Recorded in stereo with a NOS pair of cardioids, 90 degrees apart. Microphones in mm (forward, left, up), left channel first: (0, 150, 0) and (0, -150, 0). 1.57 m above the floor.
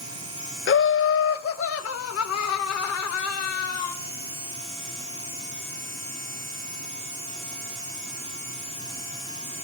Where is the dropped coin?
I don't hear a dropped coin.